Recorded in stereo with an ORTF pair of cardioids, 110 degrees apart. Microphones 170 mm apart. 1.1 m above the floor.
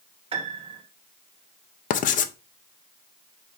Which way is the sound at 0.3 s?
35° right.